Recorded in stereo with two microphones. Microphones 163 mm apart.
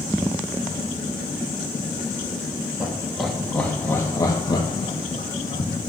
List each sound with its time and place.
2.8 s laughter: 5° right (ahead or behind), 2 m; by 5.7 s 50° left (ahead or behind), 2.0 m